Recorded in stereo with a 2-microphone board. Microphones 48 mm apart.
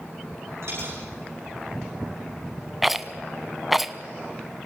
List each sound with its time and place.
0.6 s a dropped coin: 65° right (ahead or behind), 9 m
2.8 s a rattle: 5° right (ahead or behind), 0.7 m